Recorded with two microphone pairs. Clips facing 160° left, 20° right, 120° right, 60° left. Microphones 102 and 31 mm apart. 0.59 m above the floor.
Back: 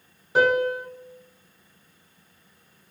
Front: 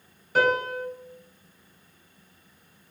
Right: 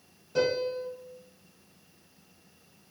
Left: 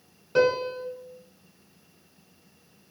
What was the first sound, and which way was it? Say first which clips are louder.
A piano: back 3 dB, left 5 dB; 95° left.